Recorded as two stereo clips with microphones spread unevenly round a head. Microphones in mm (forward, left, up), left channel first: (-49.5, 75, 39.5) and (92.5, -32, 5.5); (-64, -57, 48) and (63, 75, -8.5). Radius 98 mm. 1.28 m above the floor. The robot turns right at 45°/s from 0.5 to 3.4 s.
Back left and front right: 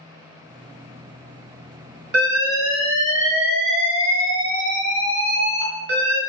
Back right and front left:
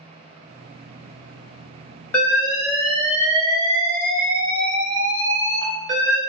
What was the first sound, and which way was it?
An alarm, 70° right.